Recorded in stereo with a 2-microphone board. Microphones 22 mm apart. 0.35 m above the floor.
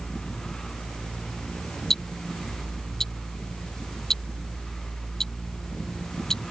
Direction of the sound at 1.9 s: 20° left (ahead or behind).